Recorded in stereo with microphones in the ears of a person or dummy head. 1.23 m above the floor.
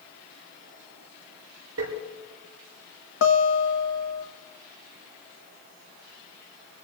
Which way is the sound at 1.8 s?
80° right.